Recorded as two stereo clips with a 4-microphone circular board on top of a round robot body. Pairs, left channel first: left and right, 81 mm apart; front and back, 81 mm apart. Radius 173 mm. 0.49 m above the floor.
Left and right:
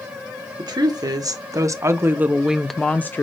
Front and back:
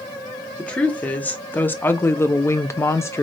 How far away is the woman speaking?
About 1.4 m.